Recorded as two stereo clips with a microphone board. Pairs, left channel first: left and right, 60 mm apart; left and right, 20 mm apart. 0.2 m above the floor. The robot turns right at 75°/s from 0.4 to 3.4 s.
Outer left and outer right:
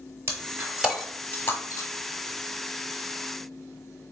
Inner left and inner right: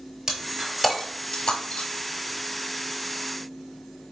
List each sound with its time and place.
0.3 s breaking glass: 45° right (ahead or behind), 0.9 m; by 1.9 s 65° left (ahead or behind), 0.9 m